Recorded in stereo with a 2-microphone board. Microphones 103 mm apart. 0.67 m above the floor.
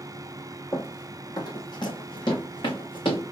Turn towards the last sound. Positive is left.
turn(degrees=50)  # may be behind; listen again after turning